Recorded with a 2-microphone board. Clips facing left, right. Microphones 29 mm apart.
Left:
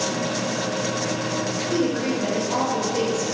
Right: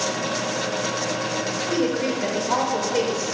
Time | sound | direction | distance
1.7 | a woman speaking | 40° right (ahead or behind) | 2 m